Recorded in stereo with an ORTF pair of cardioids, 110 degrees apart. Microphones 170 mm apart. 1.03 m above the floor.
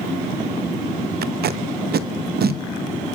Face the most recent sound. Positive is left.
turn(degrees=-65)